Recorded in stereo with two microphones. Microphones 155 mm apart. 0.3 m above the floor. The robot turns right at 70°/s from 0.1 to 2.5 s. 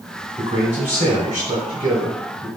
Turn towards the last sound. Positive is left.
turn(degrees=0)